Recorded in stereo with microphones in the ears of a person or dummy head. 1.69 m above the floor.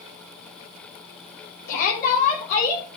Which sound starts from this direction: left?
A shout, at 1.7 s.